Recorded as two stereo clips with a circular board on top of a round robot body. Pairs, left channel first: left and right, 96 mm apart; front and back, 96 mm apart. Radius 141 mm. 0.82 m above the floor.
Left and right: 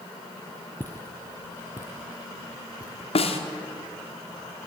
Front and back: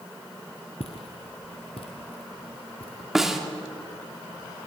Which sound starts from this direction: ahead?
Footsteps, at 0.8 s.